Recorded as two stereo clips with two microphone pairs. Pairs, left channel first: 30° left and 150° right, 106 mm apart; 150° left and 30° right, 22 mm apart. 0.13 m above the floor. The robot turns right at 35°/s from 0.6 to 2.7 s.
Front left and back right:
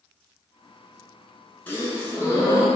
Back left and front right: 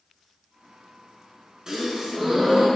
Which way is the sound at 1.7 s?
15° right.